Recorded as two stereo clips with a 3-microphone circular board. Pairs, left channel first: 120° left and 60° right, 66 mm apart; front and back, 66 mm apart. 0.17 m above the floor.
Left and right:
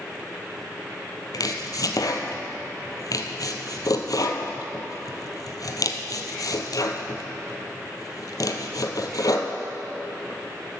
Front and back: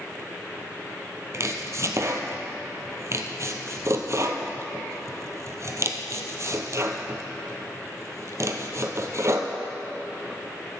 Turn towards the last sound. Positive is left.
turn(degrees=140)